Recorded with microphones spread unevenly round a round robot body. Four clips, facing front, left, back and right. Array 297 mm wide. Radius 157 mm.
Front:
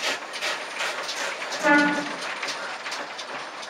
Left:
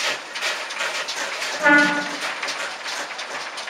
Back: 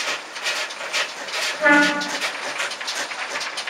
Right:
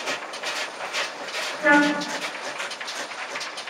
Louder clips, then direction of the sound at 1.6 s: Left 2 dB, back 3 dB; 130° left.